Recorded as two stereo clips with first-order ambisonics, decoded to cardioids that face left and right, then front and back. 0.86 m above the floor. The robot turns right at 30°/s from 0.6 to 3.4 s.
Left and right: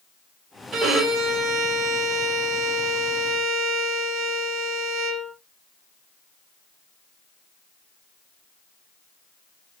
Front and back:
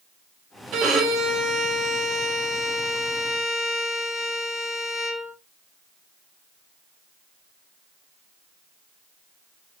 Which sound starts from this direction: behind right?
A violin, at 0.7 s.